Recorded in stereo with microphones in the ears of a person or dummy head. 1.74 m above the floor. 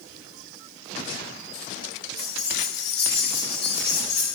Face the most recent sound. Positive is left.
turn(degrees=45)  # may be behind; listen again after turning